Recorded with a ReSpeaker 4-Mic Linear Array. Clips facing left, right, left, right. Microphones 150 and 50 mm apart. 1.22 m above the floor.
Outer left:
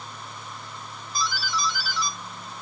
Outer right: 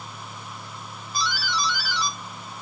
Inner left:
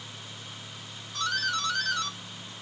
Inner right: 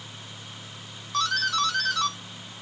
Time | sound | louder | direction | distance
1.1 | a doorbell | outer right 1 dB, inner right 5 dB | 75° right (ahead or behind) | 1.4 m